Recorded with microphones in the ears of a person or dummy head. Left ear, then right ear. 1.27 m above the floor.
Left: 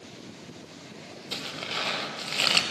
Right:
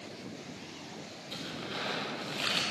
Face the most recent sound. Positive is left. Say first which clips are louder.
# left 7 dB
turn(degrees=30)  # may be behind; listen again after turning